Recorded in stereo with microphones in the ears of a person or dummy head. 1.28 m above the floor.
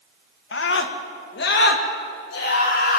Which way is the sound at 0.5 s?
65° left (ahead or behind).